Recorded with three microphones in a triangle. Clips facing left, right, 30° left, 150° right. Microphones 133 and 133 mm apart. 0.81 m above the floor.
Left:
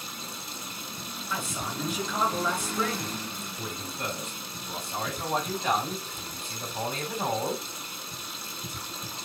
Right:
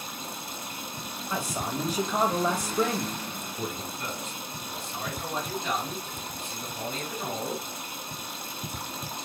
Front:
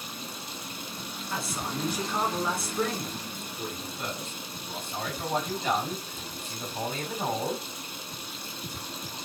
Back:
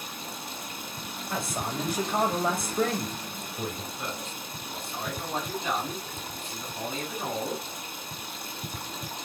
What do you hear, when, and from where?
0.0 s running water: 120° right, 1.4 m
1.3 s a man speaking: 130° right, 1.5 m
4.0 s a man speaking: 70° left, 3 m